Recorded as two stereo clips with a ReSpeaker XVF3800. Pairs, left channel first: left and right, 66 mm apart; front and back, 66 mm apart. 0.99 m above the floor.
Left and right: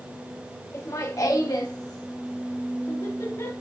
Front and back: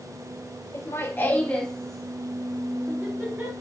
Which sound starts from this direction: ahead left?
Laughter, at 0.7 s.